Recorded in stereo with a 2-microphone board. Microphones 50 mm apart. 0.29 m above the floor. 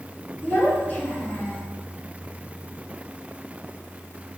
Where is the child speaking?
35° left (ahead or behind), 3.5 m; by 1.6 s 30° left (ahead or behind), 2.5 m.